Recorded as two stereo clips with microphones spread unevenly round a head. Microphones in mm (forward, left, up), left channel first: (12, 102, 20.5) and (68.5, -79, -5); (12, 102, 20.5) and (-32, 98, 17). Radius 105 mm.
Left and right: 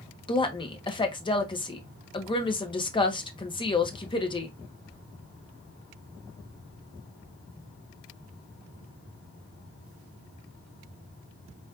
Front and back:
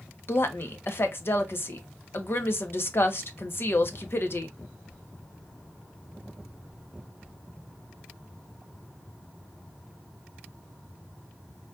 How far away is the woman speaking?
About 1.2 m.